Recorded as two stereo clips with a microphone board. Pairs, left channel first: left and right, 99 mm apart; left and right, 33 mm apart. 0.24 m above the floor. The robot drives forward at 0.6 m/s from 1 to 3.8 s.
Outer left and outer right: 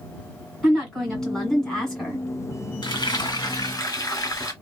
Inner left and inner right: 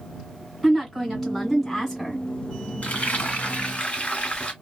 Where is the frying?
55° left (ahead or behind), 1.3 m; by 4.5 s 40° left (ahead or behind), 1.6 m.